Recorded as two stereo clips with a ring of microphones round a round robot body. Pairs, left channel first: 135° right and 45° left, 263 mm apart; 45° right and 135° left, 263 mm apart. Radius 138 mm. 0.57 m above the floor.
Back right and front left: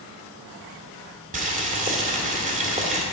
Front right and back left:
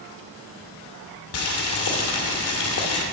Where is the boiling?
15° right, 1.6 m.